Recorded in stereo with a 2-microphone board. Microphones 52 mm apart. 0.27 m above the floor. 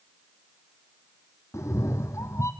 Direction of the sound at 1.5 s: 60° left (ahead or behind).